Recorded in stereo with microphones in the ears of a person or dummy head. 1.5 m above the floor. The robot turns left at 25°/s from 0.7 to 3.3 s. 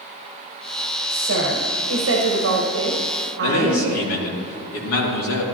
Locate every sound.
1.1 s a woman speaking: 70° right, 1.5 m; by 4.1 s 125° right, 1.5 m
3.4 s a man speaking: 85° left, 2.5 m